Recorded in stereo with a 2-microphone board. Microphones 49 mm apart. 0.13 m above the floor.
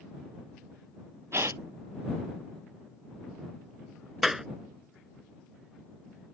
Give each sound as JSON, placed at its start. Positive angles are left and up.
{"t": 1.3, "sound": "a gasp", "side_deg": -60}
{"t": 4.2, "sound": "a clap", "side_deg": -5}